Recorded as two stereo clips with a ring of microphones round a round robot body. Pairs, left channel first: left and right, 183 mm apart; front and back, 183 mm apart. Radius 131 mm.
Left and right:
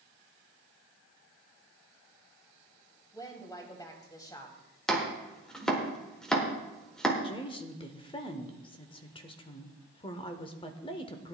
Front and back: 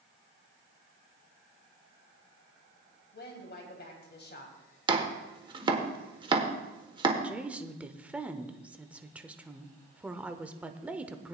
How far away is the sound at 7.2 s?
About 0.9 m.